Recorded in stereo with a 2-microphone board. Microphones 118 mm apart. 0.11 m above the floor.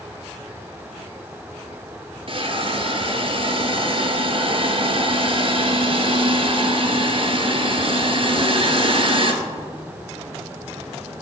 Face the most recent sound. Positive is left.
turn(degrees=-50)  # may be behind; listen again after turning